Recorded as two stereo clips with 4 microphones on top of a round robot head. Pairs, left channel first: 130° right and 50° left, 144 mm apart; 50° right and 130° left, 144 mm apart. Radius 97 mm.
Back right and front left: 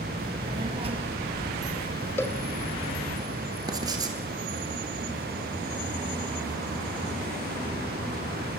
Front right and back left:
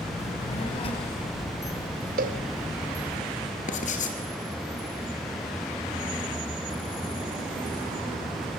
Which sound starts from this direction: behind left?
A cowbell, at 2.2 s.